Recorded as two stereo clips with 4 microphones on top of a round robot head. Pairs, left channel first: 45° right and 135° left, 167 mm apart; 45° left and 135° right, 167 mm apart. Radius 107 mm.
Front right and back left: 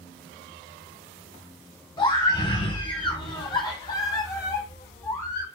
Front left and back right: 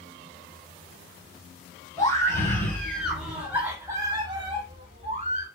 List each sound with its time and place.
2.0 s a scream: 10° right, 1.6 m; by 5.5 s 115° right, 1.8 m